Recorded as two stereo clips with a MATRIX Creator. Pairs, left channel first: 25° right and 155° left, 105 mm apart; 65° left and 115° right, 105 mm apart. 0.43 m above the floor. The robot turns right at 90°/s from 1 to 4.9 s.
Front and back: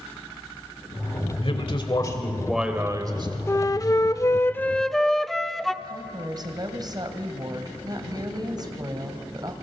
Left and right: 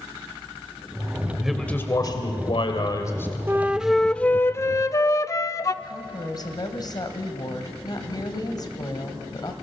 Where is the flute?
65° right, 0.6 m; by 5.7 s 65° left, 0.6 m.